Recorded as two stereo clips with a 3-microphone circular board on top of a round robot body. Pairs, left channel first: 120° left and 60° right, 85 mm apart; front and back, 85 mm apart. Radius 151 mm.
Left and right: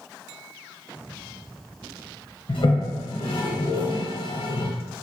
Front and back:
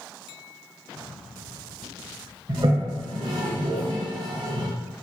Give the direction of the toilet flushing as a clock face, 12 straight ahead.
7 o'clock.